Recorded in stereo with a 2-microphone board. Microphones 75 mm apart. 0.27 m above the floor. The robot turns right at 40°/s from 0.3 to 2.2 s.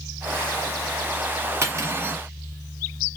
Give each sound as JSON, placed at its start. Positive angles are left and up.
{"t": 1.6, "sound": "cutlery clinking", "side_deg": -35, "distance_m": 1.4}